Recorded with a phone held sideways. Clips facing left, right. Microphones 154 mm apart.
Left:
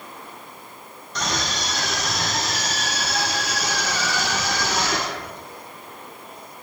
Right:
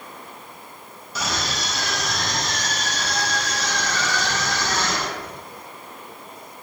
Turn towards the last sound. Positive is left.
turn(degrees=15)  # may be behind; listen again after turning